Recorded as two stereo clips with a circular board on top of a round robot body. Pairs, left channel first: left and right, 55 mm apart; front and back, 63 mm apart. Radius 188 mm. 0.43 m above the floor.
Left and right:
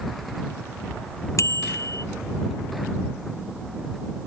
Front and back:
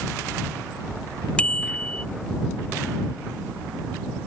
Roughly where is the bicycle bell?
Left.